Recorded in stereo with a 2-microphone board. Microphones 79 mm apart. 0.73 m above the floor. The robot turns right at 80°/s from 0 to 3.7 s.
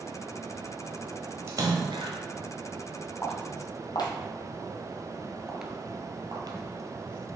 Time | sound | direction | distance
1.5 | a splash | 145° right | 1.1 m
3.2 | footsteps | 25° left (ahead or behind) | 2 m